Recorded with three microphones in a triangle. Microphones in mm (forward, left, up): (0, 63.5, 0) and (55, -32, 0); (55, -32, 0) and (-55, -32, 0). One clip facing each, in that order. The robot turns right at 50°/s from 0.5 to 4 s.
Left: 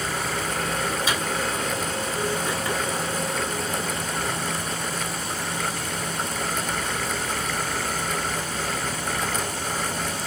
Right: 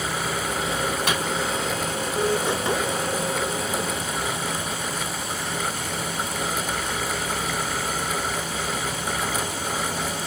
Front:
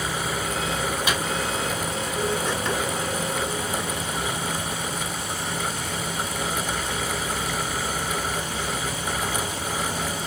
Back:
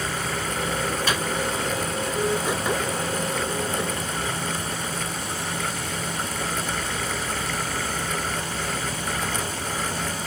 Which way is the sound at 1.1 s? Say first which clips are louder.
Right 1 dB, even; 75° right.